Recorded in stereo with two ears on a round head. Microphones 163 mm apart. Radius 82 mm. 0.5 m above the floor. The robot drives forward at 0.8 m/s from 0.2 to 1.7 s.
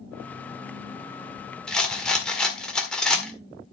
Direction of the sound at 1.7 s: 5° left (ahead or behind).